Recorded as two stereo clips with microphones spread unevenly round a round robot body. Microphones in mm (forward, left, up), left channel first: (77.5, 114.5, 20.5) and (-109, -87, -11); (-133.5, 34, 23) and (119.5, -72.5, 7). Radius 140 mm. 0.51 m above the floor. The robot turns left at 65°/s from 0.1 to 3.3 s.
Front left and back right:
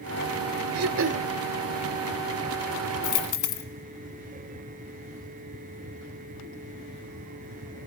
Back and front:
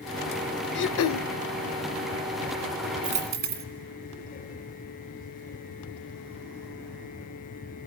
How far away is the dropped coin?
About 1.9 m.